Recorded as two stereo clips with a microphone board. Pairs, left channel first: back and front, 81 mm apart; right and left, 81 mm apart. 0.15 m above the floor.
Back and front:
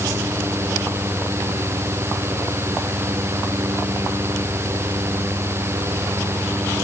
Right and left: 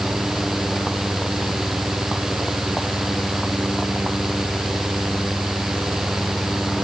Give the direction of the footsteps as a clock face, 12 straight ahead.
I don't hear footsteps.